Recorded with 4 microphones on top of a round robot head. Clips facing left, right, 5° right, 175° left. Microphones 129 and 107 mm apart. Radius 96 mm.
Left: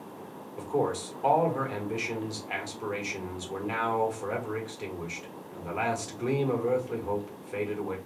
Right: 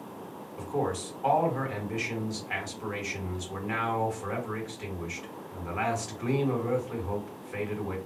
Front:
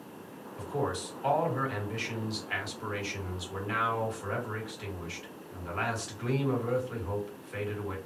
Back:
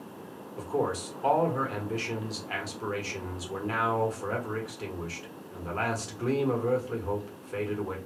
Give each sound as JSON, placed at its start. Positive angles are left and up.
{"t": 0.6, "sound": "a man speaking", "azimuth_deg": 140, "distance_m": 1.3}